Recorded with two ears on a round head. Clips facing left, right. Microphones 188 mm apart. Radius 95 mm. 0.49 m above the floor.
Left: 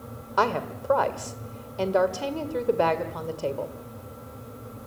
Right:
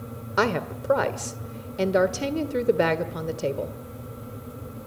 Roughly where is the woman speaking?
Right.